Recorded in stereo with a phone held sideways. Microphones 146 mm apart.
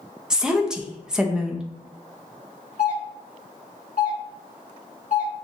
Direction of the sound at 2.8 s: 55° left (ahead or behind).